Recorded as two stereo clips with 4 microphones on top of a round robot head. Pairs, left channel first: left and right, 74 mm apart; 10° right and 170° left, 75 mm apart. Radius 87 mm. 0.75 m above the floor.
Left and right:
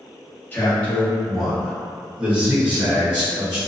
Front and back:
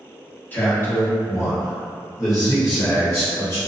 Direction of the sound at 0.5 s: 40° left.